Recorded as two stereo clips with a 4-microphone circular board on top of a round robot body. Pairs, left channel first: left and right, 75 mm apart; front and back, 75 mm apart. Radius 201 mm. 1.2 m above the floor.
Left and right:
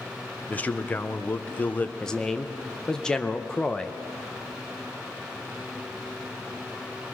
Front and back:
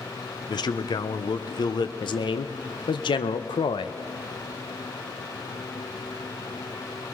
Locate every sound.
0.5 s a man speaking: 20° left, 1.0 m
2.0 s a man speaking: 10° left, 0.8 m